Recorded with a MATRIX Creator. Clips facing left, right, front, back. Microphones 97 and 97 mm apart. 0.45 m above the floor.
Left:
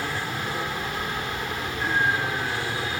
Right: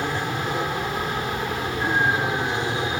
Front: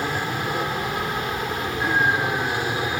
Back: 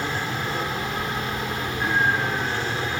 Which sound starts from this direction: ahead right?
An aircraft, at 0.0 s.